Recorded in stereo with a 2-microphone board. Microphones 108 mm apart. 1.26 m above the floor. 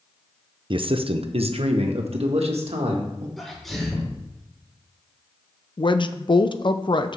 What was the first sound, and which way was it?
A man speaking, 50° right (ahead or behind).